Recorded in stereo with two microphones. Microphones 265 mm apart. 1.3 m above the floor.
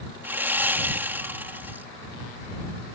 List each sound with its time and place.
0.2 s sawing: 5° right (ahead or behind)